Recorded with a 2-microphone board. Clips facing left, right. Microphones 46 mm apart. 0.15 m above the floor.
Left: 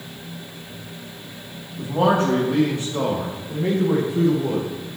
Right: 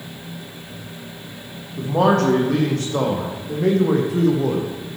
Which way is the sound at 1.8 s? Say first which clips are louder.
Right 2 dB; 75° right (ahead or behind).